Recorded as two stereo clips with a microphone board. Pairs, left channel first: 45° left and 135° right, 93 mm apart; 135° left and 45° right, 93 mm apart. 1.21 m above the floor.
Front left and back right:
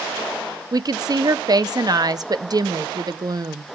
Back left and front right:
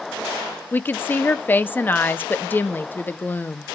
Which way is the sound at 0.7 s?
160° right.